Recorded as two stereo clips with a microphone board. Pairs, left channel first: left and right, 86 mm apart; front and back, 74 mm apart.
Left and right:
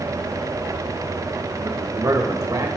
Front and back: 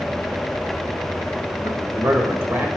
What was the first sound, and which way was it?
A man speaking, 135° right.